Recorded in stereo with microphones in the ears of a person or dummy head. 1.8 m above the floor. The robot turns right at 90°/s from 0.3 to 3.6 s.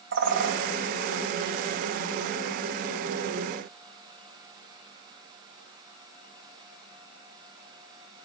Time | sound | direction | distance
0.1 | a bird | 75° right (ahead or behind) | 2.5 m